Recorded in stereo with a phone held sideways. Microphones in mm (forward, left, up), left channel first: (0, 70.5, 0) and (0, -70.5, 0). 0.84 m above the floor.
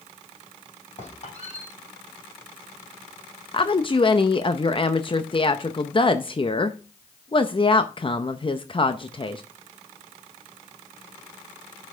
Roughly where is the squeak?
Left.